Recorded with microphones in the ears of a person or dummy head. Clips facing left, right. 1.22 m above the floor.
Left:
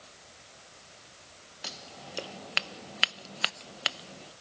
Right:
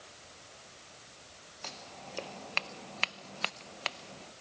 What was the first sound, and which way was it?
Scissors, 15° left (ahead or behind).